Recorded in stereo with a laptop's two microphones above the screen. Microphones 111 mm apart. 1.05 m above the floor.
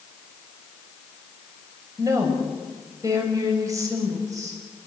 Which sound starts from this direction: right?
A woman speaking, at 2.0 s.